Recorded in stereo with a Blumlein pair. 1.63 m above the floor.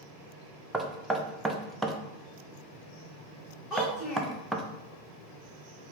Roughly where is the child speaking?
Ahead.